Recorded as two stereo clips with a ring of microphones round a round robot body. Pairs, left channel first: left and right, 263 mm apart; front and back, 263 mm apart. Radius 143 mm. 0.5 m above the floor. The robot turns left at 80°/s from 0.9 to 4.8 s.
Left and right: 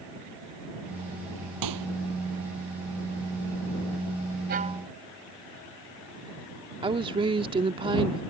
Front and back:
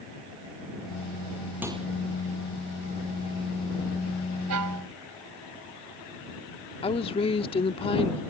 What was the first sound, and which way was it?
A microwave, 95° right.